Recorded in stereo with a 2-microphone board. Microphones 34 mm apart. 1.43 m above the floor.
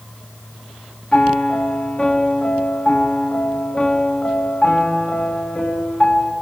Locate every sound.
1.1 s a piano: 40° left (ahead or behind), 2.5 m